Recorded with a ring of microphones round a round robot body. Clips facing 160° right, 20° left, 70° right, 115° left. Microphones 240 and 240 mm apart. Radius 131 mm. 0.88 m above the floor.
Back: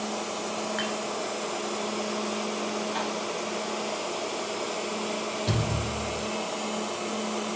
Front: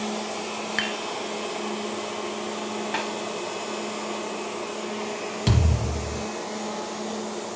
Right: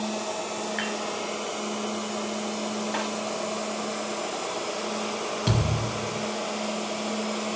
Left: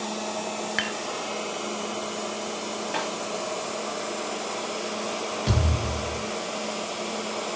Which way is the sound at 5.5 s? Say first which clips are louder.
Front 5 dB, even; 10° left.